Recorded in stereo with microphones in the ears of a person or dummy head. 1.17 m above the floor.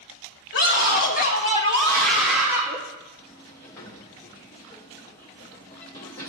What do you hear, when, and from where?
0.5 s a scream: 65° left (ahead or behind), 2.5 m; by 2.8 s 20° right (ahead or behind), 2.5 m
3.2 s a sliding door: 15° left (ahead or behind), 0.6 m